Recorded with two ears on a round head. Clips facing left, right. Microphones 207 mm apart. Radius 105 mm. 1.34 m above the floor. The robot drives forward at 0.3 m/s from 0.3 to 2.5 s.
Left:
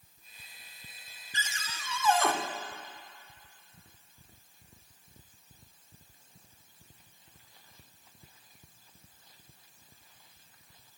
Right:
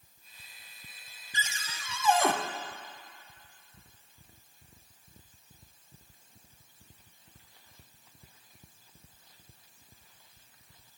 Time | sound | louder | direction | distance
1.3 | a cupboard door | right 1 dB | 10° right (ahead or behind) | 1.1 m